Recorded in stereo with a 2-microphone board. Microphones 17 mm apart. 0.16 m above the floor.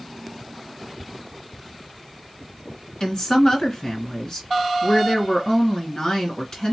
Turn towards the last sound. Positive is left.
turn(degrees=40)  # may be behind; listen again after turning